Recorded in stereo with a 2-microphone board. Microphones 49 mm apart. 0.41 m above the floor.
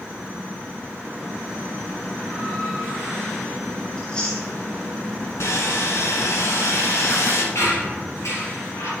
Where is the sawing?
70° left (ahead or behind), 1.3 m.